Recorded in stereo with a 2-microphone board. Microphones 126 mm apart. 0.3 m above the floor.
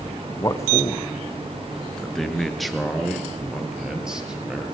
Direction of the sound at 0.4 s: 30° left (ahead or behind).